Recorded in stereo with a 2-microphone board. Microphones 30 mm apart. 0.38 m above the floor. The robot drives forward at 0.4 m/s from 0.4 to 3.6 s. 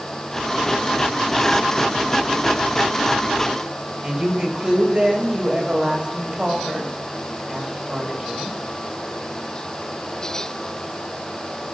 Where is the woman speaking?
30° right (ahead or behind), 2 m.